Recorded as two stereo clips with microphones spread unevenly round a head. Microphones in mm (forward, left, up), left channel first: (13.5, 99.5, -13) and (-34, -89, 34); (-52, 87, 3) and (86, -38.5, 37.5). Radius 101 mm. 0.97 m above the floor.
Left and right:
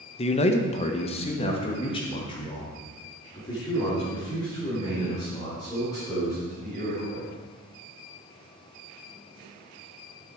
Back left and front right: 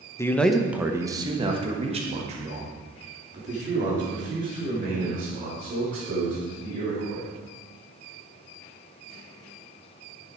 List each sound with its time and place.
0.2 s a man speaking: 80° left, 0.9 m; by 7.3 s 5° left, 5.5 m